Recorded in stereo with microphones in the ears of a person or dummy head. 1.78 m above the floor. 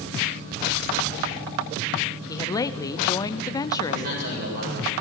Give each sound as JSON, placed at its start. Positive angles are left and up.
{"t": 2.3, "sound": "a woman speaking", "side_deg": 20, "distance_m": 0.8}
{"t": 3.8, "sound": "a man speaking", "side_deg": -55, "distance_m": 8.0}